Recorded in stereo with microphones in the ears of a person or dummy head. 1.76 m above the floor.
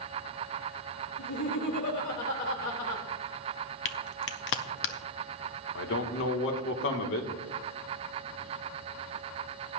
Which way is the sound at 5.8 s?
65° left (ahead or behind).